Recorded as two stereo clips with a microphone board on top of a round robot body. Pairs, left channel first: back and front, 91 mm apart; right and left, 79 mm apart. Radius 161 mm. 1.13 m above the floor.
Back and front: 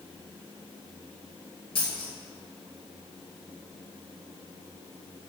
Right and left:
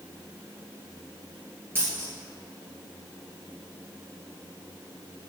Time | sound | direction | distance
1.8 | a dropped coin | 150° left | 1.9 m